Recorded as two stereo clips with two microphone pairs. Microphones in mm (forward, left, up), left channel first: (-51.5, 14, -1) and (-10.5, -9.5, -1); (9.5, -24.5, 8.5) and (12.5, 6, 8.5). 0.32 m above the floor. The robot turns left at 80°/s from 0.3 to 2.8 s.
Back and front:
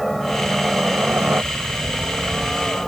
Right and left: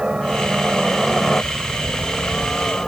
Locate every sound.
0.0 s a helicopter: 65° left; by 2.9 s 135° right